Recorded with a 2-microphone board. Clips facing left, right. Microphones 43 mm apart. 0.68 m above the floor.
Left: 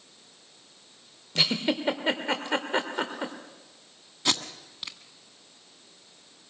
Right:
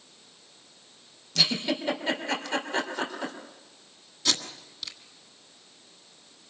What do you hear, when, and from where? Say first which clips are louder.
1.4 s a giggle: left 1 dB; 25° left (ahead or behind), 2.5 m
4.2 s tape being pulled: left 1 dB; 25° left (ahead or behind), 1.6 m